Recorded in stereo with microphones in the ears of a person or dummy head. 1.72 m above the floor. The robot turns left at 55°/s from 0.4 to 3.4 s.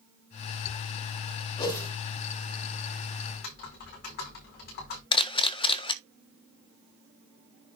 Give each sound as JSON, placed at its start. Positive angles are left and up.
{"t": 1.6, "sound": "a whoosh", "side_deg": 25, "distance_m": 4.0}
{"t": 3.3, "sound": "typing on a keyboard", "side_deg": 45, "distance_m": 4.5}
{"t": 5.1, "sound": "a camera shutter", "side_deg": 25, "distance_m": 1.1}